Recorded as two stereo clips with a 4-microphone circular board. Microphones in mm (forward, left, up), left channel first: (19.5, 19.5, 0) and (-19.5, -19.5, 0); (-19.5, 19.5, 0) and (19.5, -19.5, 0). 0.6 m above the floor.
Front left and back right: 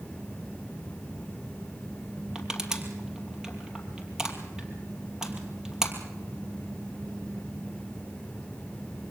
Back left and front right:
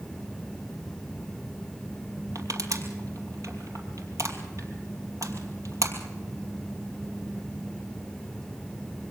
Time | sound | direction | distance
2.4 | crushing | 55° right | 2.5 m